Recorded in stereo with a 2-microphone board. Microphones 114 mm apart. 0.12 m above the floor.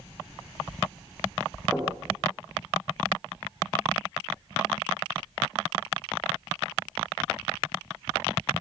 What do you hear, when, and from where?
1.7 s knocking: 10° right (ahead or behind), 6.5 m